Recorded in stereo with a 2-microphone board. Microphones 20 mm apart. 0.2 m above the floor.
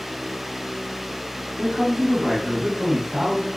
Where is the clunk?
I don't hear a clunk.